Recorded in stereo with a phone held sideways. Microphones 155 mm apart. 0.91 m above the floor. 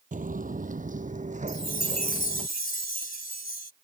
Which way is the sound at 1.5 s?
70° left (ahead or behind).